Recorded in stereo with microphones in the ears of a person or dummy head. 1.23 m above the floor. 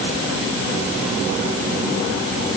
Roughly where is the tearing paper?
No tearing paper in this recording.